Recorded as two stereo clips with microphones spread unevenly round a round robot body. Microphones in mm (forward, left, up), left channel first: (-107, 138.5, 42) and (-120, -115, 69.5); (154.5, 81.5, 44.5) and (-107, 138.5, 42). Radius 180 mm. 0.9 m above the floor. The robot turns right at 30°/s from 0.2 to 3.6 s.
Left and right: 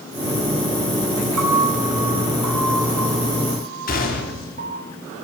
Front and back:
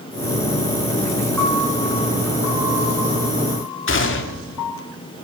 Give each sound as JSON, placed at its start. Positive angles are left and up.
{"t": 1.4, "sound": "a piano", "azimuth_deg": -95, "distance_m": 3.5}
{"t": 3.9, "sound": "a gunshot", "azimuth_deg": 30, "distance_m": 3.0}